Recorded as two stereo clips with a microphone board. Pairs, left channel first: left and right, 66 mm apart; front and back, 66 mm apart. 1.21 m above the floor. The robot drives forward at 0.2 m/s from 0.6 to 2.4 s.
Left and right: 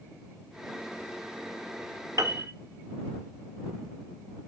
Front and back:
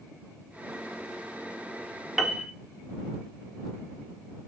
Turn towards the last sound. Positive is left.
turn(degrees=-100)